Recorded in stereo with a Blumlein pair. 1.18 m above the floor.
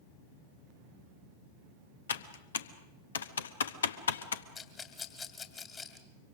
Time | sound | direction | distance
2.1 | typing on a keyboard | 65° left | 1.0 m
4.5 | a rattle | 20° left | 2.5 m